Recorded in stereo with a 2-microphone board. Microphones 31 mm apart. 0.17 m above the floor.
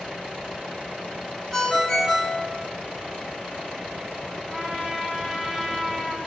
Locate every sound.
1.5 s a ringtone: 5° left (ahead or behind), 1.3 m
4.5 s a trumpet: 30° right (ahead or behind), 1.6 m